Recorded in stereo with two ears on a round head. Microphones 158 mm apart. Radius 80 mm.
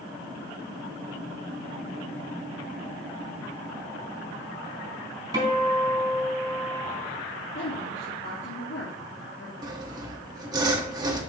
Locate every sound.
5.3 s a guitar: 20° right (ahead or behind), 3 m
7.5 s a woman speaking: 60° left (ahead or behind), 3 m
9.6 s sawing: 20° right (ahead or behind), 1.2 m